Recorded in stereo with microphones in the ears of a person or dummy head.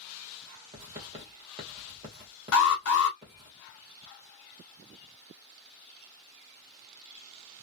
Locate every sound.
0.7 s writing: 30° right (ahead or behind), 1.2 m
2.5 s an alarm: 70° left (ahead or behind), 0.8 m